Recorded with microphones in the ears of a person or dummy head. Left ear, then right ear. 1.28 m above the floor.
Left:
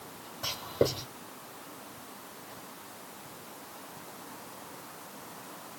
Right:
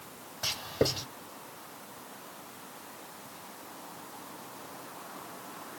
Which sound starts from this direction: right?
Writing, at 0.4 s.